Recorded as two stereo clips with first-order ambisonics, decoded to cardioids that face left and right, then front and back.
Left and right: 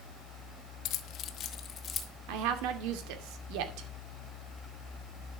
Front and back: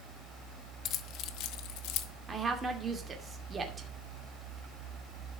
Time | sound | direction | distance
0.8 | keys jangling | 55° left | 0.9 m
2.3 | a woman speaking | 105° right | 2.5 m